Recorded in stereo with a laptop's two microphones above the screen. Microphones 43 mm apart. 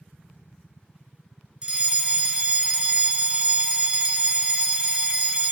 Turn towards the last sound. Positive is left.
turn(degrees=-20)  # may be behind; listen again after turning